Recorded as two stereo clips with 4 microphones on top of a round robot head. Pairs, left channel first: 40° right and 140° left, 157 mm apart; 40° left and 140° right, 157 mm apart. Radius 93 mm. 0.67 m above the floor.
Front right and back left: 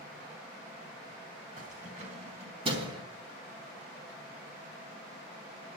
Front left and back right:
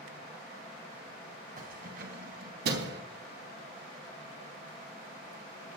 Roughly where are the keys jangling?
Behind.